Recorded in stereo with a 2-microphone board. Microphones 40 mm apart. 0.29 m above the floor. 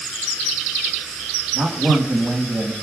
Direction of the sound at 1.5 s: 55° right (ahead or behind).